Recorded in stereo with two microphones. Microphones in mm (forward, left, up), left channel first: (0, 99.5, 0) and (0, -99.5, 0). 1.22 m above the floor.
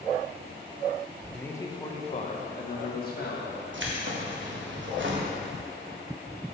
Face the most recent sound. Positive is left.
turn(degrees=-75)  # may be behind; listen again after turning